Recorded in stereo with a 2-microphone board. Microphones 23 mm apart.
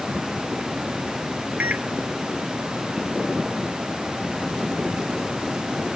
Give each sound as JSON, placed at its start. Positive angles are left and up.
{"t": 1.6, "sound": "a microwave", "side_deg": -70}